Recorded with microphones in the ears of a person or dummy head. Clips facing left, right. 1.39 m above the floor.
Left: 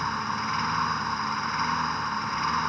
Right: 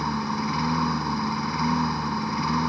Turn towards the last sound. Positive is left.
turn(degrees=-30)  # may be behind; listen again after turning